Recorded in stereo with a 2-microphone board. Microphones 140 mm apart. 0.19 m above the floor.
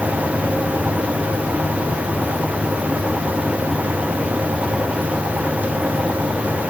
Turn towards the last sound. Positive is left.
No sound to turn to.